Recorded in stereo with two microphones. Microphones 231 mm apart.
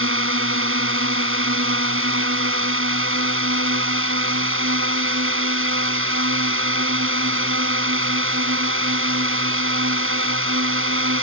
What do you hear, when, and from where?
0.0 s a drone: 65° right (ahead or behind)